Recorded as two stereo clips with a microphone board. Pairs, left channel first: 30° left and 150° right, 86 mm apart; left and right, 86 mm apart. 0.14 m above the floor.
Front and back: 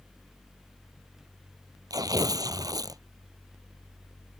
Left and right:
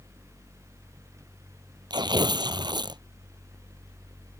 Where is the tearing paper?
110° right.